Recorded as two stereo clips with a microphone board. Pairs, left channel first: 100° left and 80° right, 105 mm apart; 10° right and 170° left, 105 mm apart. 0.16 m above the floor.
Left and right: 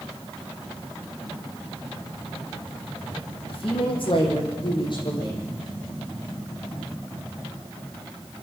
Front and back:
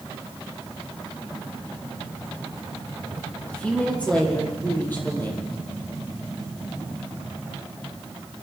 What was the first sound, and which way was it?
A woman speaking, 70° left.